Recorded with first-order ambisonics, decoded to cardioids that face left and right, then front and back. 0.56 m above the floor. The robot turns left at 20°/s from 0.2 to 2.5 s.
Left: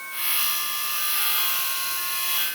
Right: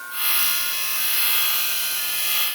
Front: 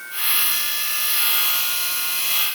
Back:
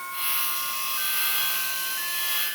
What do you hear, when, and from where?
Only background noise.